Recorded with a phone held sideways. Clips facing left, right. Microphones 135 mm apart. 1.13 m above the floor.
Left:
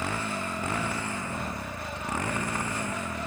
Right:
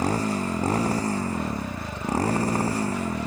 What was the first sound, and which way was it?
A motorcycle, 40° right (ahead or behind).